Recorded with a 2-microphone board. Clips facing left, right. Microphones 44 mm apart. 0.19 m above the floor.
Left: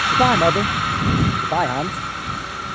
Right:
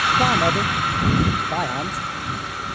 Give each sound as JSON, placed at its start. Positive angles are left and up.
{"t": 0.1, "sound": "a man speaking", "side_deg": 20}